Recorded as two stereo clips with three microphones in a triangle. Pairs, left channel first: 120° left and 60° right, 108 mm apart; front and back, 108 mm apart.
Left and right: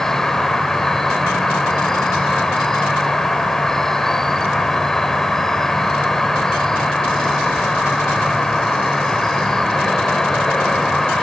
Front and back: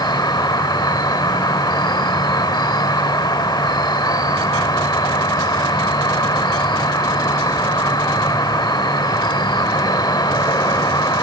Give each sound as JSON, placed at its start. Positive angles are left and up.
{"t": 0.0, "sound": "an insect", "azimuth_deg": 35, "distance_m": 0.8}